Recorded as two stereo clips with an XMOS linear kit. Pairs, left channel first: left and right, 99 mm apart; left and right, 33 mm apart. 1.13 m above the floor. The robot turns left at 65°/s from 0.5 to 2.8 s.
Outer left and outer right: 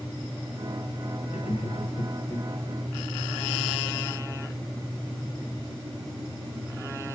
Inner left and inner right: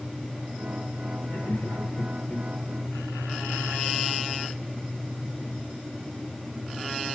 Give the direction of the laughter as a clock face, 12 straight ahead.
8 o'clock.